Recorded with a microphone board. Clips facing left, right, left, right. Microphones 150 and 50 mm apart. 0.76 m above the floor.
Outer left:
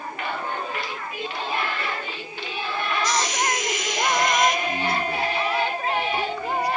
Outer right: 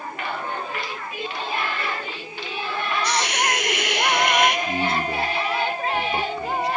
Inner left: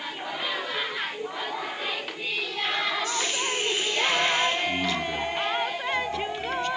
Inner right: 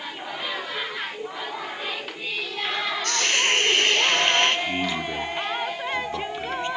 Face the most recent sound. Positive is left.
turn(degrees=-25)  # may be behind; listen again after turning